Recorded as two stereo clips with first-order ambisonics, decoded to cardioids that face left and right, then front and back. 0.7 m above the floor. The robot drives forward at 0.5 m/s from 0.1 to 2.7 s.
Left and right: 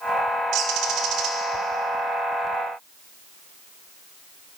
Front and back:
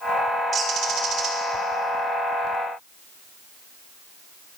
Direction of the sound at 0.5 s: 120° right.